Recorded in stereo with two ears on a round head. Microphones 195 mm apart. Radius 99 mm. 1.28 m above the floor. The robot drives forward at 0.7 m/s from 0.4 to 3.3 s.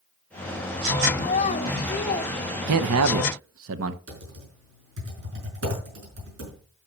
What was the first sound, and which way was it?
A child speaking, 35° left (ahead or behind).